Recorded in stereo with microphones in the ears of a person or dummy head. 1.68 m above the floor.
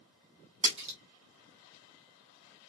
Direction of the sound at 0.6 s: 30° right (ahead or behind).